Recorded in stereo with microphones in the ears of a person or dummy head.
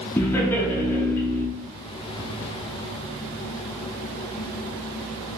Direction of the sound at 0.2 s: 15° left (ahead or behind).